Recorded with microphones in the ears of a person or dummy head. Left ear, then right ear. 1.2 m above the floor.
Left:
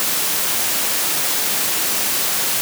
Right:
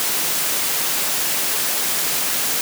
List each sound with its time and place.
Only background noise.